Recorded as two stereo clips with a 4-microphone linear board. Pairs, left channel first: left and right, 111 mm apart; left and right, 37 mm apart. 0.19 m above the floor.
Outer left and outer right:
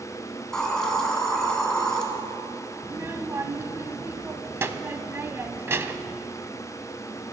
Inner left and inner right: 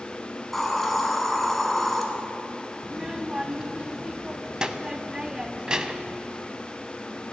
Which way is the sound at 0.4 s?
5° left (ahead or behind).